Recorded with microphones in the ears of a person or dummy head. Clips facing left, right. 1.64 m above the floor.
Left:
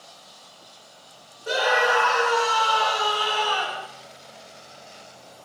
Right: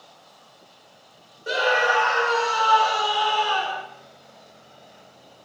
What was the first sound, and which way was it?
A scream, 25° right (ahead or behind).